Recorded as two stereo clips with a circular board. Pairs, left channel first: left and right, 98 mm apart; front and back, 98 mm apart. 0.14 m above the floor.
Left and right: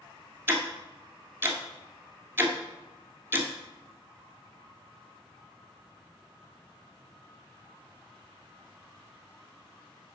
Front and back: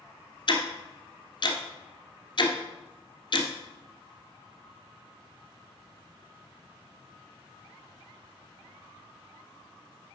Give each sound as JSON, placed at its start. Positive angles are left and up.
{"t": 0.5, "sound": "ticking", "azimuth_deg": -25, "distance_m": 1.4}